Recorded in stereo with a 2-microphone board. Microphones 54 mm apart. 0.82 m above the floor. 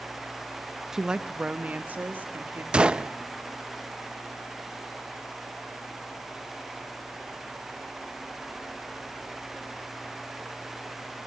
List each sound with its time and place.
0.9 s a woman speaking: 10° right (ahead or behind), 0.7 m; by 2.6 s 35° right (ahead or behind), 1.9 m
2.7 s a gunshot: 20° right (ahead or behind), 0.5 m